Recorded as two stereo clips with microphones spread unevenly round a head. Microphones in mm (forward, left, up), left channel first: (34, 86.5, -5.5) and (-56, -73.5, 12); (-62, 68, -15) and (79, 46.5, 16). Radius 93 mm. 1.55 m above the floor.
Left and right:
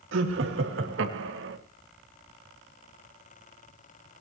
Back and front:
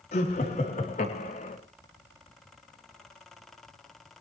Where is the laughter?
135° right, 3 m.